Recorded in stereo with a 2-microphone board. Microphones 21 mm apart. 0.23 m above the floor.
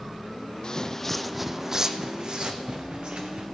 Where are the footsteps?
40° left (ahead or behind), 0.5 m; by 3.5 s 55° right (ahead or behind), 1.4 m.